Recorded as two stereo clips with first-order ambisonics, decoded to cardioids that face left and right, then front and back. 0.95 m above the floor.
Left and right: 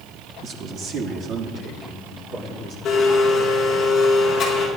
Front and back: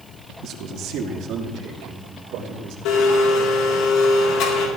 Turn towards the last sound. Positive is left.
turn(degrees=25)